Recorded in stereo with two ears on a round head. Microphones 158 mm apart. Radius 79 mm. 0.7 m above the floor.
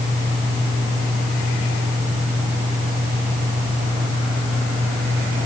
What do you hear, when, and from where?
Only background noise.